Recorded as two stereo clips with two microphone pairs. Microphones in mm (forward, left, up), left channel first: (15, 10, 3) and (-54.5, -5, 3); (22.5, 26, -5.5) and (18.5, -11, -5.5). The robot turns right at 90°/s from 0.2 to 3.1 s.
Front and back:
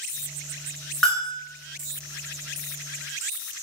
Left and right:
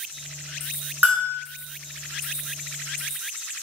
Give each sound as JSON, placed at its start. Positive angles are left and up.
{"t": 1.0, "sound": "a bell", "azimuth_deg": -75, "distance_m": 0.8}